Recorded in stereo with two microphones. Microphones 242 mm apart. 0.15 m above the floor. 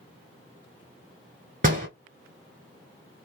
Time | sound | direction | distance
1.6 | a door slam | 35° right (ahead or behind) | 1.4 m